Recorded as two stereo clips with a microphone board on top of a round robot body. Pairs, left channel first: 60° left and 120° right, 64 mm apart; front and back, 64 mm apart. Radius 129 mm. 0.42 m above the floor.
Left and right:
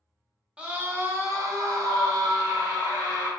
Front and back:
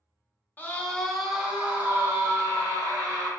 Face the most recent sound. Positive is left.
turn(degrees=-140)